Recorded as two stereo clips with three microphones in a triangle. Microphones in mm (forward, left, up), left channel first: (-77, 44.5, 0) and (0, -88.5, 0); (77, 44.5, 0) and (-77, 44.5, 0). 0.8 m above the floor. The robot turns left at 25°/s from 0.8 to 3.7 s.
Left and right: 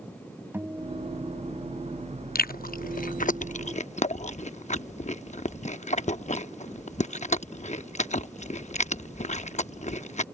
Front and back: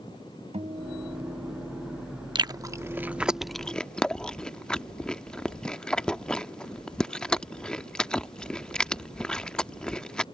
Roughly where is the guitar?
Behind right.